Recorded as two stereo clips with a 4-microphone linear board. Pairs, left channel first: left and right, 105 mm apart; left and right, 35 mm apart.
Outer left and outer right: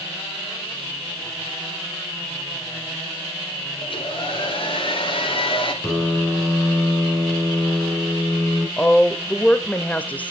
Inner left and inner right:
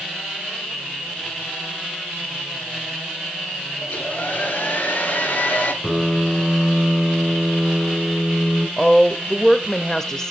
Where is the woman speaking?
15° left (ahead or behind), 0.9 m.